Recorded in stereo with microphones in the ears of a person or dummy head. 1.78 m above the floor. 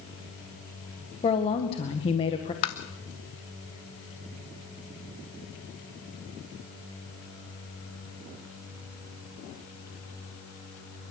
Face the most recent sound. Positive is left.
turn(degrees=25)  # may be behind; listen again after turning